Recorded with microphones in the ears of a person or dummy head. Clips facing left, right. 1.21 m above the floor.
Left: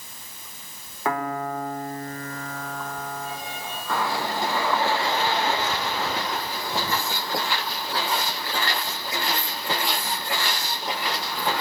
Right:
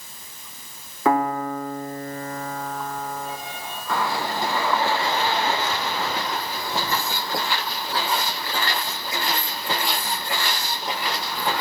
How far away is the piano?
About 3.5 m.